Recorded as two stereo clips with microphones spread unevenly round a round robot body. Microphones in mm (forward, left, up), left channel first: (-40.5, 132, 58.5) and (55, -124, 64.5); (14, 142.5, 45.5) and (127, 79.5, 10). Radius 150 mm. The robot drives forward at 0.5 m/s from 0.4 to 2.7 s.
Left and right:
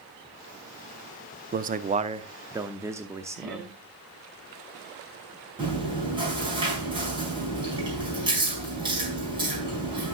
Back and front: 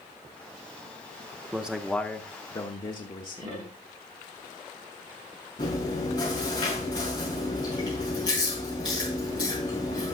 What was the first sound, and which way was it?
A man speaking, 60° right.